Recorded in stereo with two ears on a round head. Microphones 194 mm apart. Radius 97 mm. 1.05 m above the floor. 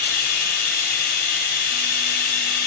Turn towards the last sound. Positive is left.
turn(degrees=45)  # may be behind; listen again after turning